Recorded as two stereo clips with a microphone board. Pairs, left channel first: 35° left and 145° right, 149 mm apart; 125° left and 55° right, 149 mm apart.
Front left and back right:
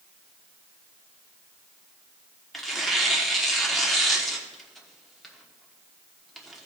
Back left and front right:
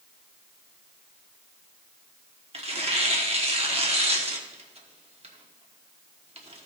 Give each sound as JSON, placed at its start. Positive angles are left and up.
{"t": 2.5, "sound": "tearing paper", "azimuth_deg": -55, "distance_m": 1.1}